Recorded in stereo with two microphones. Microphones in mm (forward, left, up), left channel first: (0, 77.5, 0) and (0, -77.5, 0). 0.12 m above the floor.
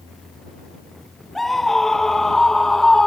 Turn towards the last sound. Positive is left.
turn(degrees=5)  # may be behind; listen again after turning